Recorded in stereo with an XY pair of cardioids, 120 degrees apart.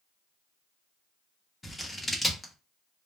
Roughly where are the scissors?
Ahead.